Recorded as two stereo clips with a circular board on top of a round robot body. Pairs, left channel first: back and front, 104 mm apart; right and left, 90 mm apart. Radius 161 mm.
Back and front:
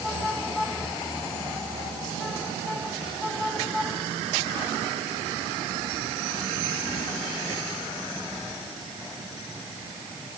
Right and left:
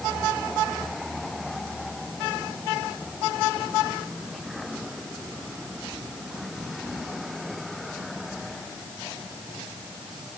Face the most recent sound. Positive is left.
No sound to turn to.